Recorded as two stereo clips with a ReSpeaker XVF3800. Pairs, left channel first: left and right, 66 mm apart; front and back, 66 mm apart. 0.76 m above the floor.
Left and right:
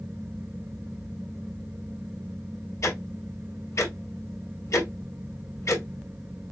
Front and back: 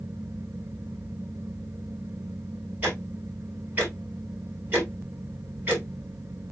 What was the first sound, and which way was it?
Ticking, 120° left.